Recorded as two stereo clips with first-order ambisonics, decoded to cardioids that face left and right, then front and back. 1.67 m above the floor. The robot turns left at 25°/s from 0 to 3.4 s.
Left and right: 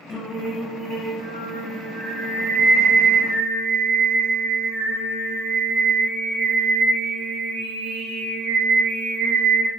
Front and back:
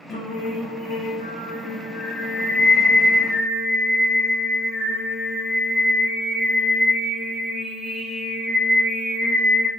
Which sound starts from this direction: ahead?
Singing, at 0.1 s.